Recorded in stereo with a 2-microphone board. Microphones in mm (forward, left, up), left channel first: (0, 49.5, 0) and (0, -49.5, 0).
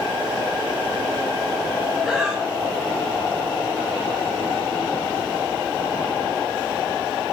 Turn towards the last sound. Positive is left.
turn(degrees=-5)  # may be behind; listen again after turning